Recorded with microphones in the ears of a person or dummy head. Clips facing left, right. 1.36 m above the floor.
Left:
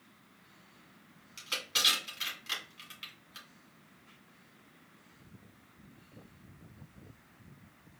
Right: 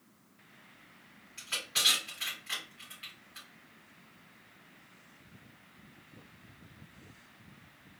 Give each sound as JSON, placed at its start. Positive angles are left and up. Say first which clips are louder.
{"t": 1.4, "sound": "crushing", "louder": "left 2 dB", "side_deg": 60, "distance_m": 2.5}